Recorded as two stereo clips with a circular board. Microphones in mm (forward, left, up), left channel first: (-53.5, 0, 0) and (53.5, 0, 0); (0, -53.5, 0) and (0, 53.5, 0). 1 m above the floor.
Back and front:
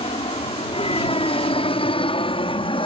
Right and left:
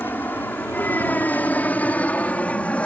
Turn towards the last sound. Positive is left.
turn(degrees=-165)